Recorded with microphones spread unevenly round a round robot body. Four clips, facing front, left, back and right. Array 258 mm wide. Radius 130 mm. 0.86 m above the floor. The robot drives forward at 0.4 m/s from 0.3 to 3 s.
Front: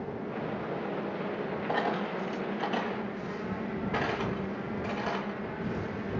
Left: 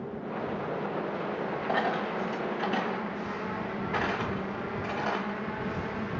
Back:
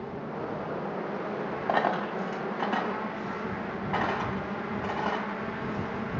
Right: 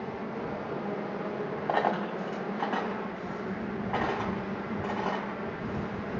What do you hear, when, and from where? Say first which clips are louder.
1.7 s a dropped coin: right 2 dB, back 5 dB; 155° right, 1.7 m; by 6.2 s 160° right, 2 m